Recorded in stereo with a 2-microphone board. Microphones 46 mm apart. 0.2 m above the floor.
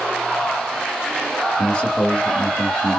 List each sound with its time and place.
1.6 s a man speaking: 30° left (ahead or behind), 1.6 m